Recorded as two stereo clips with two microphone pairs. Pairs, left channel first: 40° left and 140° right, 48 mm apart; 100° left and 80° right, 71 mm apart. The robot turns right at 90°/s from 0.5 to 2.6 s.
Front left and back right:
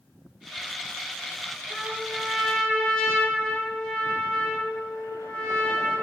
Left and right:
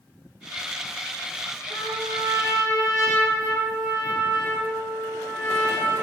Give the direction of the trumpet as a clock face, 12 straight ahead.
4 o'clock.